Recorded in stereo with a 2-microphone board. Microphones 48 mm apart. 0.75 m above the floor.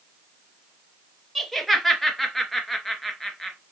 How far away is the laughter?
About 0.6 m.